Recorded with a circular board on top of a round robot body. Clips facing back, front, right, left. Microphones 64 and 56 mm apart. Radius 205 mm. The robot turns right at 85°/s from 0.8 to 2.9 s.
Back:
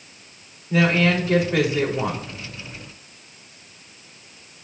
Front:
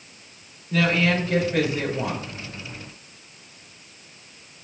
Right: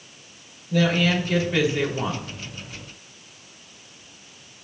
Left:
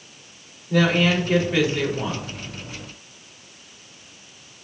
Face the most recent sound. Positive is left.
turn(degrees=-70)